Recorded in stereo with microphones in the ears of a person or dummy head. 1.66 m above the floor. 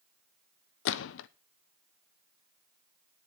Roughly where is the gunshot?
Left.